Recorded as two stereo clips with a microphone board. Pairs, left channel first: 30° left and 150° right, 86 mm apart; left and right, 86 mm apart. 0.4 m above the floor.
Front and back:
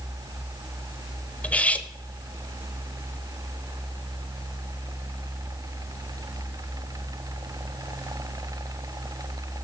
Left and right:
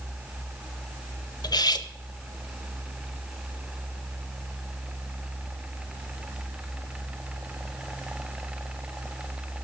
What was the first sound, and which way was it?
Cutlery clinking, 100° left.